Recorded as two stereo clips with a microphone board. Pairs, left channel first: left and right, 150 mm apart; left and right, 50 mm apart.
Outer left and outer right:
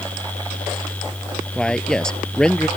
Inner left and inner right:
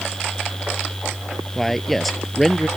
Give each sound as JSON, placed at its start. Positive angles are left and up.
{"t": 1.6, "sound": "a man speaking", "side_deg": 5}